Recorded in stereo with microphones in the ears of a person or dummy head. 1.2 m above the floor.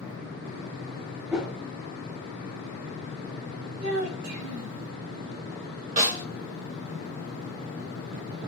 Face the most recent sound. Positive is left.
turn(degrees=-40)  # may be behind; listen again after turning